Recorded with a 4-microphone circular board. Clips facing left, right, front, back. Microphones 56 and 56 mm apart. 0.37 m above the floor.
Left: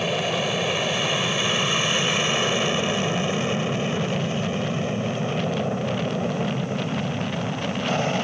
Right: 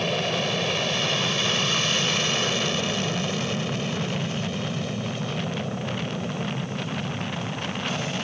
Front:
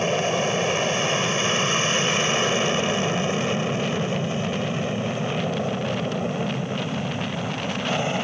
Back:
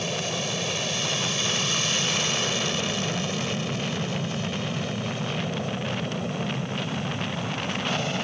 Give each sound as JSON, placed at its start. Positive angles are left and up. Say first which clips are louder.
{"t": 0.0, "sound": "an aircraft", "louder": "left 1 dB, front 7 dB", "azimuth_deg": 15}